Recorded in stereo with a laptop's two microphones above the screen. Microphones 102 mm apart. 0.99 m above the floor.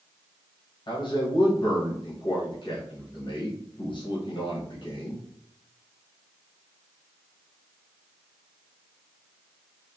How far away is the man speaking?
About 1.1 m.